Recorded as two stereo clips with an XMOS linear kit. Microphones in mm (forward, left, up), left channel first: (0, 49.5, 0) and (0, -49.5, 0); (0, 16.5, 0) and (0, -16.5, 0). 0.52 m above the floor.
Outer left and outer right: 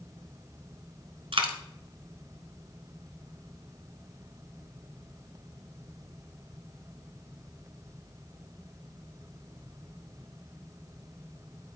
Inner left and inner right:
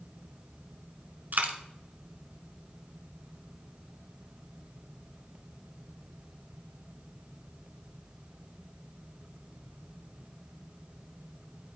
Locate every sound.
1.3 s a dropped coin: 75° right (ahead or behind), 1.2 m